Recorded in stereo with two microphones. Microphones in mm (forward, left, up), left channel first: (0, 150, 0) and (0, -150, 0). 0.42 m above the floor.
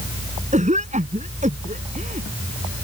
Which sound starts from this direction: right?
A cough, at 0.5 s.